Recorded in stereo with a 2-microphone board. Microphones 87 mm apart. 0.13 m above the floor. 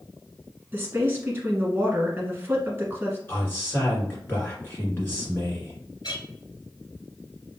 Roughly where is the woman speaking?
Right.